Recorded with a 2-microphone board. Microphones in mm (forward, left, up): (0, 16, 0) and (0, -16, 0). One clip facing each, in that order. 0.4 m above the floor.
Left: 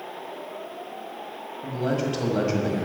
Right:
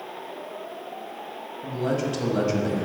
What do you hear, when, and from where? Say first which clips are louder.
1.6 s a man speaking: even; 5° left (ahead or behind), 1.9 m